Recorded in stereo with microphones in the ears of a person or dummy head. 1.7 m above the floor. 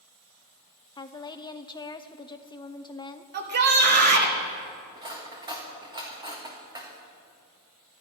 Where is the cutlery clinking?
30° right (ahead or behind), 1.5 m.